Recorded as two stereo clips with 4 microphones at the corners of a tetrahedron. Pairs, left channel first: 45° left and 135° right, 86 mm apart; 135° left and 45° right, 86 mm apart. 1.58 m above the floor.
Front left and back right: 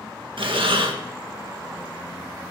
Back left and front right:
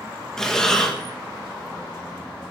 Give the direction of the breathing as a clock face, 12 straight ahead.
5 o'clock.